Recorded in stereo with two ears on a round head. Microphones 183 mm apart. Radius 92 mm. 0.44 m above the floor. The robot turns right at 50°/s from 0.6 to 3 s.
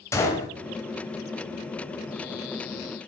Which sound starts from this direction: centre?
A gunshot, at 0.1 s.